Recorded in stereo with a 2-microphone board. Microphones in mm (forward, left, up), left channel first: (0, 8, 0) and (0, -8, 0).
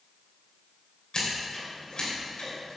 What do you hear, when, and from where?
1.1 s scissors: 55° left (ahead or behind), 3.5 m